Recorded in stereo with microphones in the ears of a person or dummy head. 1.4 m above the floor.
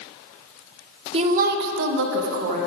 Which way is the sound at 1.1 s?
35° right (ahead or behind).